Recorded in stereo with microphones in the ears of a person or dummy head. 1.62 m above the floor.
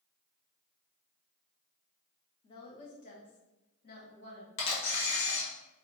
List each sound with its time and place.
2.4 s a woman speaking: 25° left (ahead or behind), 0.7 m; by 4.5 s 55° left (ahead or behind), 1.8 m
4.6 s a camera shutter: 60° left (ahead or behind), 1.1 m